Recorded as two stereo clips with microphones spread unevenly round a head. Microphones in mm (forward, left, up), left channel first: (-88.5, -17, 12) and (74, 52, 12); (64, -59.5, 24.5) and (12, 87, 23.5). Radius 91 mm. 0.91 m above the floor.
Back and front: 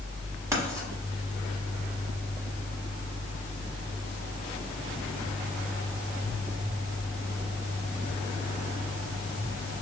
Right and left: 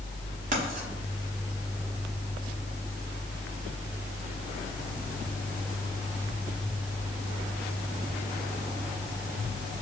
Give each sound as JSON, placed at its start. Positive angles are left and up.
{"t": 0.5, "sound": "writing", "azimuth_deg": 90, "distance_m": 1.0}